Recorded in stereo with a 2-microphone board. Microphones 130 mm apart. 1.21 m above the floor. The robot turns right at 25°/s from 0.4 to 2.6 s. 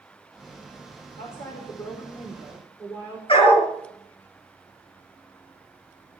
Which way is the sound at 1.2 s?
120° left.